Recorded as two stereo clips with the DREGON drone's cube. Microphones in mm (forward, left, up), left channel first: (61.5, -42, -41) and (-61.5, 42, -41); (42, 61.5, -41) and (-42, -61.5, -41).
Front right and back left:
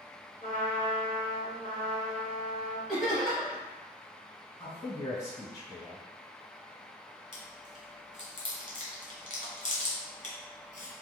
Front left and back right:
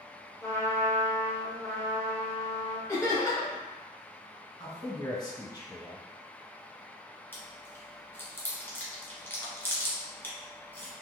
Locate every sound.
0.4 s a trumpet: 15° right, 0.9 m
2.9 s laughter: 55° left, 0.9 m
4.6 s a man speaking: 20° left, 1.4 m
7.3 s chewing: 20° right, 1.0 m